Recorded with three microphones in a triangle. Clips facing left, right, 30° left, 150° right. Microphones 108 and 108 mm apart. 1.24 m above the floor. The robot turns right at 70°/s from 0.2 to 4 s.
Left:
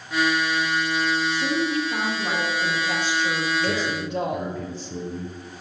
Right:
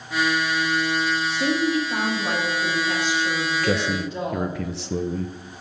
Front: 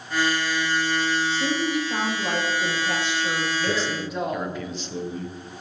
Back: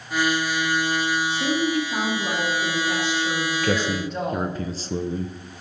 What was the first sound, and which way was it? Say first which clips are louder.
A woman speaking: right 2 dB, back 2 dB; 75° right.